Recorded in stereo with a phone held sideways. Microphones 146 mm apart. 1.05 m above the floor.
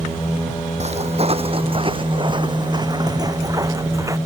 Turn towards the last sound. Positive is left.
turn(degrees=-20)  # may be behind; listen again after turning